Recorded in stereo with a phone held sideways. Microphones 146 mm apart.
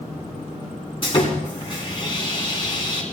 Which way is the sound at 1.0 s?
35° left (ahead or behind).